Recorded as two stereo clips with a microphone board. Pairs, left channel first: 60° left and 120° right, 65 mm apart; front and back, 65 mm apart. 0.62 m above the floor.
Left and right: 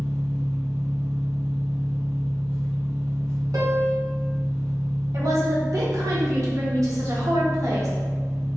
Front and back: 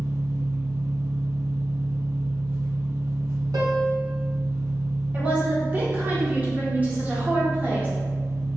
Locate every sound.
0.0 s an engine running: 135° left, 0.9 m
3.5 s a piano: 150° right, 0.7 m
5.1 s a woman speaking: 120° right, 1.1 m